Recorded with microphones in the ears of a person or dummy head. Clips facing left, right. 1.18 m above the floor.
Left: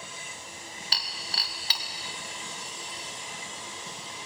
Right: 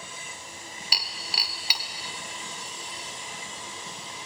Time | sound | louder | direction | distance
0.9 | breaking glass | right 2 dB | 10° right (ahead or behind) | 2 m